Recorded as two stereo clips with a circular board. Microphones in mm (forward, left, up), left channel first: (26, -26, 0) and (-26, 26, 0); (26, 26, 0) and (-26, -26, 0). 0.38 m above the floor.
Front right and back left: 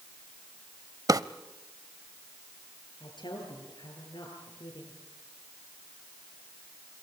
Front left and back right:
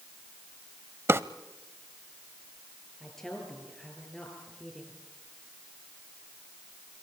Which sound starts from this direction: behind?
A drawer, at 1.1 s.